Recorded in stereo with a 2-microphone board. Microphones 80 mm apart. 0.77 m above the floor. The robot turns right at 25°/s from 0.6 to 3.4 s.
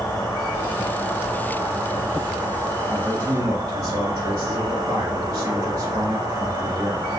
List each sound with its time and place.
0.0 s an insect: 160° left, 1.5 m; by 7.2 s 130° right, 1.5 m
2.9 s a man speaking: 35° right (ahead or behind), 1.1 m